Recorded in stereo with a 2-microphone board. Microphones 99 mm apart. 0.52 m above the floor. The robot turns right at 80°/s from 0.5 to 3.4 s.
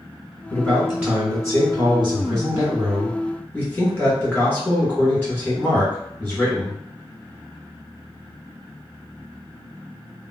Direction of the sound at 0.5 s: 155° left.